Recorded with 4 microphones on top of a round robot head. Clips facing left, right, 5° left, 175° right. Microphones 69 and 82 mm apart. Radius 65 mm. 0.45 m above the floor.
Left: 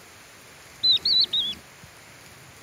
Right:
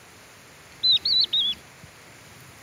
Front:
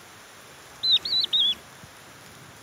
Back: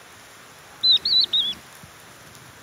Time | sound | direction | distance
0.8 | a bird | 120° left | ?